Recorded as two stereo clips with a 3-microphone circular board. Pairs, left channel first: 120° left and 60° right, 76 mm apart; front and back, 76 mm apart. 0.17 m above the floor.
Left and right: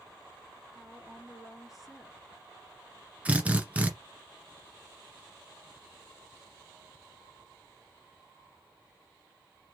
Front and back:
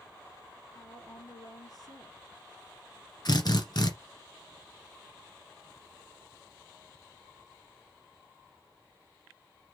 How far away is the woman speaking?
About 2 m.